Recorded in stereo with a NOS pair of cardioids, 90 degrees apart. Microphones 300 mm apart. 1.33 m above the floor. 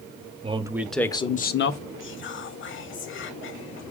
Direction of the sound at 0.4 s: 20° right.